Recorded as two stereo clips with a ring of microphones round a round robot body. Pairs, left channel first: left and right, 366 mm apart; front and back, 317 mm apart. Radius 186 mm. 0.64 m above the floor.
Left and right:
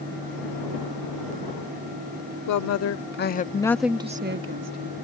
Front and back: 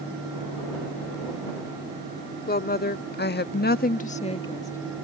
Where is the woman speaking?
55° left; by 4.9 s 85° right.